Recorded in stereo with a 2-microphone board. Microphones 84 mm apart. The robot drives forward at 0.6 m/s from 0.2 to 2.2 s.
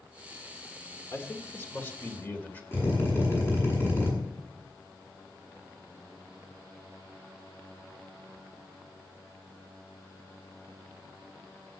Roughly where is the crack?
I don't hear a crack.